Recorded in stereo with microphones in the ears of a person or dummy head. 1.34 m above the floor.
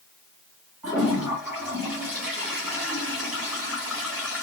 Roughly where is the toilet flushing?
Centre.